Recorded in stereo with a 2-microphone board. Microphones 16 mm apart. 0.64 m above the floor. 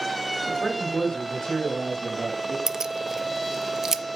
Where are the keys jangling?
40° right (ahead or behind), 0.5 m.